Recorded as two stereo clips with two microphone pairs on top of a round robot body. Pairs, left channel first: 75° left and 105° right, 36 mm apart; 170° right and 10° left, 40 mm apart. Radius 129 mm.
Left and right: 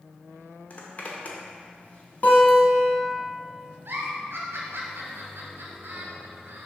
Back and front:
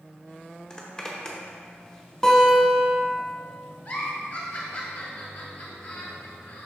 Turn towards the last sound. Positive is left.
turn(degrees=-120)